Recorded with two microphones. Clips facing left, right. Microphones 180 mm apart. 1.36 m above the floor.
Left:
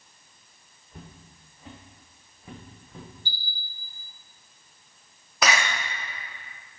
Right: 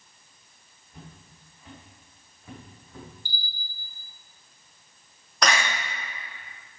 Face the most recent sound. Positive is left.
turn(degrees=5)  # may be behind; listen again after turning